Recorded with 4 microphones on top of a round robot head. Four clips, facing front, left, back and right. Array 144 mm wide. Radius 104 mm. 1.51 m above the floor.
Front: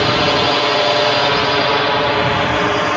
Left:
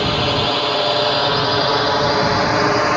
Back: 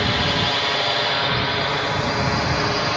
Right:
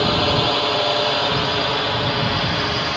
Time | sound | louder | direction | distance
0.0 | a drone | even, front 8 dB | 5° right | ?